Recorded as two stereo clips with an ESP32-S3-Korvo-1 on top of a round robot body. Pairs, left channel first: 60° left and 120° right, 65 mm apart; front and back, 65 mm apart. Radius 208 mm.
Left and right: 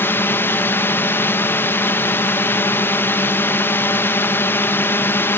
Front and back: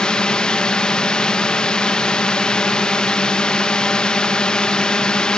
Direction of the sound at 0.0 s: 70° left.